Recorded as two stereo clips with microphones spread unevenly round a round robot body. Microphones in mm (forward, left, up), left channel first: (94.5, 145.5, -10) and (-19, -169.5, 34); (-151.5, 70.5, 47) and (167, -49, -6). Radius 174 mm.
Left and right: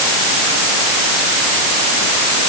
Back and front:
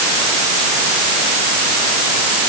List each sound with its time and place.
Only background noise.